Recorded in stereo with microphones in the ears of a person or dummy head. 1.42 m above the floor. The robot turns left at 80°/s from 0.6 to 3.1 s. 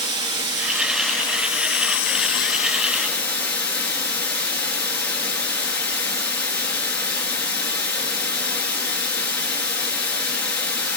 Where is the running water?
155° right, 2.5 m; by 11.0 s 5° left, 2.5 m.